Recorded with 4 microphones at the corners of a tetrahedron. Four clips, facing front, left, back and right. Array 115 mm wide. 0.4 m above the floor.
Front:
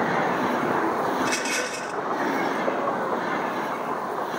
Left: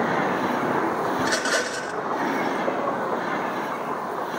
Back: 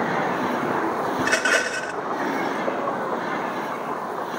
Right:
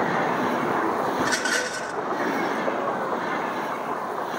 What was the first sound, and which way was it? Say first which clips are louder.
A rattle: left 1 dB, back 4 dB; 160° left.